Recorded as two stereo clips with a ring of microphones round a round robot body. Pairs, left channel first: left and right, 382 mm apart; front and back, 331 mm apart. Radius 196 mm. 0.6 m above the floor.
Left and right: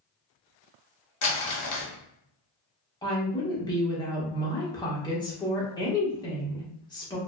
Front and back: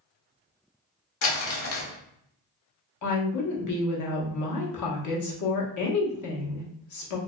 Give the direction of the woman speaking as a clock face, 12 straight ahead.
12 o'clock.